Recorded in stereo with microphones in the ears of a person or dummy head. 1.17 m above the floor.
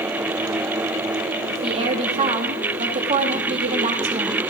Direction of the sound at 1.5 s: 30° right (ahead or behind).